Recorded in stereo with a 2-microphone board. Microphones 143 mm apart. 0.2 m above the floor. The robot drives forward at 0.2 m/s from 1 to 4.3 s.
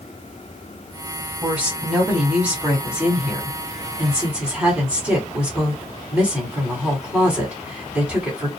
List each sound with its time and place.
1.4 s a woman speaking: 10° right (ahead or behind), 1.4 m